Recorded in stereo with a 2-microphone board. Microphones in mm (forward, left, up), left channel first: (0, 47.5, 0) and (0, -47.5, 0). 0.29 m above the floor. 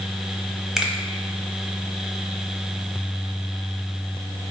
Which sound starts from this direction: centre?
A finger snap, at 0.8 s.